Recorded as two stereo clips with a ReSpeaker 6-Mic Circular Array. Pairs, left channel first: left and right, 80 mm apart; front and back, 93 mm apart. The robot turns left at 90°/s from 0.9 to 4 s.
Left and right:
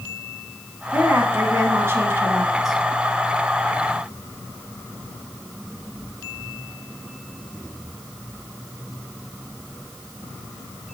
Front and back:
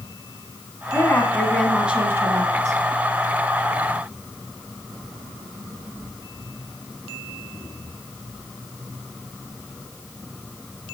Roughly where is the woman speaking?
Ahead right.